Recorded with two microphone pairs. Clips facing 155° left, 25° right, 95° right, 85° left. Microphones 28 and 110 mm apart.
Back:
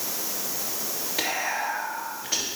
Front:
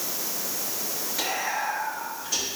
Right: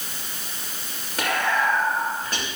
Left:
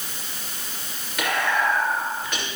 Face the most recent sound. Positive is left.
turn(degrees=-145)